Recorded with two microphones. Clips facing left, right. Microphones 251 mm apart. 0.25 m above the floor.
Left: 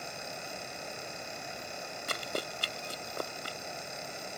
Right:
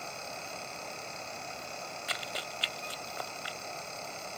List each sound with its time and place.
2.1 s running footsteps: 50° left (ahead or behind); by 3.6 s 45° left (ahead or behind)